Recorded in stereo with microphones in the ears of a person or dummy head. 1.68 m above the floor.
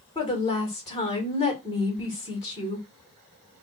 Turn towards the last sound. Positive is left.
turn(degrees=20)  # may be behind; listen again after turning